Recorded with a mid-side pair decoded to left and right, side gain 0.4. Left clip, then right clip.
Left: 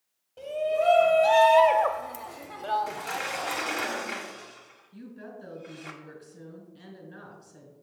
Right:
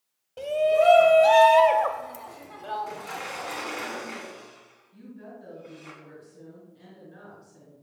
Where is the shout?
60° right, 0.9 m; by 3.9 s 60° left, 1.4 m.